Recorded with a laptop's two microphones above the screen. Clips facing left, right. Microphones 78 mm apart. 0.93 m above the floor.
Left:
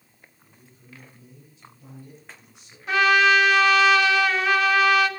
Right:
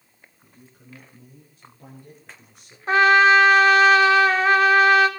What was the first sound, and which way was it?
A man speaking, 60° right (ahead or behind).